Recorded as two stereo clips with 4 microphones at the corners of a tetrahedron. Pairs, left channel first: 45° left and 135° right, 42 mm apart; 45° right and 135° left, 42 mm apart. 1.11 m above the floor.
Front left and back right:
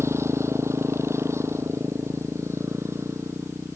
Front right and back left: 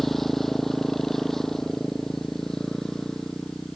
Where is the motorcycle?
135° right; by 3.8 s 125° right.